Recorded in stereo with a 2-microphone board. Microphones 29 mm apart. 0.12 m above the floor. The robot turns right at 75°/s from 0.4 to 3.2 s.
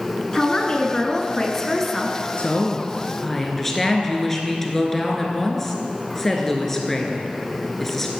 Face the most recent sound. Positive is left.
turn(degrees=165)